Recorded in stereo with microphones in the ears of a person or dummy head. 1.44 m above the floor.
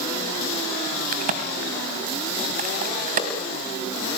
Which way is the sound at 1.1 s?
40° right (ahead or behind).